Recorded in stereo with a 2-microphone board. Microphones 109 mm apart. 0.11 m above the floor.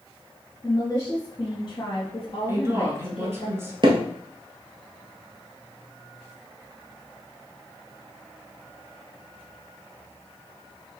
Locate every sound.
0.6 s a woman speaking: 30° left (ahead or behind), 1.8 m; by 3.5 s 55° left (ahead or behind), 3 m
2.5 s a woman speaking: 25° right (ahead or behind), 1.2 m
3.8 s hammering: 45° right (ahead or behind), 1.2 m